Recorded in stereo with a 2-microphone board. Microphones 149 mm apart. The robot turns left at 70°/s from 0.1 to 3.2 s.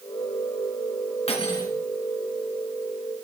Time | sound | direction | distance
1.3 | cutlery clinking | 45° left | 2.5 m